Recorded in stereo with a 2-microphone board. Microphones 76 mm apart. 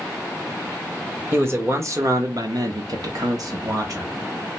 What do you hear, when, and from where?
1.3 s a man speaking: 30° right (ahead or behind), 1.0 m; by 4.1 s 45° right (ahead or behind), 1.0 m